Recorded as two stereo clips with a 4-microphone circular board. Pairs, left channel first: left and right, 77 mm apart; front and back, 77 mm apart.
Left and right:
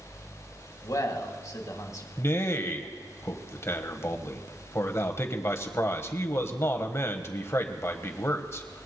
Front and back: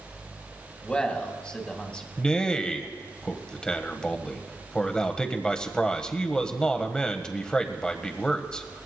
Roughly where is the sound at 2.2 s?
Left.